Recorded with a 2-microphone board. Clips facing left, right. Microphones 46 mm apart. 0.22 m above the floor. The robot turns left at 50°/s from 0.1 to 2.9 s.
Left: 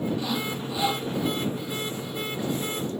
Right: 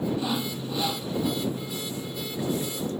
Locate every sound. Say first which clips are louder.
0.2 s sawing: even; 165° right; by 1.1 s 150° left